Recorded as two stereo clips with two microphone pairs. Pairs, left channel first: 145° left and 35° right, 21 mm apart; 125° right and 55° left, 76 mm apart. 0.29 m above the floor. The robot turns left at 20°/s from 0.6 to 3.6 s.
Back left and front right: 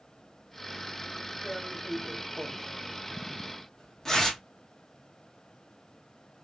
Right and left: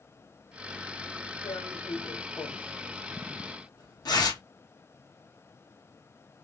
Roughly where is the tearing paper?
Right.